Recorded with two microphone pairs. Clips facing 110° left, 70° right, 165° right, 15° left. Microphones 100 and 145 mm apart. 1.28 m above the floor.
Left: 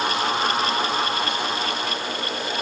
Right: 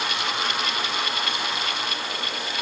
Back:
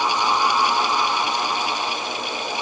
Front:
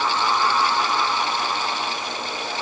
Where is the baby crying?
No baby crying in this recording.